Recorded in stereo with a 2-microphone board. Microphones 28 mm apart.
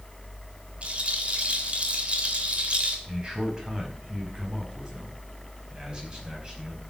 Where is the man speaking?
25° right (ahead or behind), 4.5 m.